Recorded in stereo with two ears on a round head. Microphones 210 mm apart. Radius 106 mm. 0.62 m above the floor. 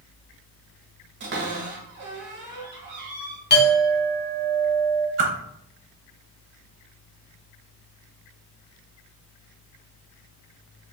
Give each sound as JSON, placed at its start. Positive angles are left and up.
{"t": 1.2, "sound": "a cupboard door", "side_deg": -50, "distance_m": 1.4}
{"t": 3.5, "sound": "a clink", "side_deg": 45, "distance_m": 1.1}
{"t": 5.2, "sound": "a whoosh", "side_deg": -50, "distance_m": 0.8}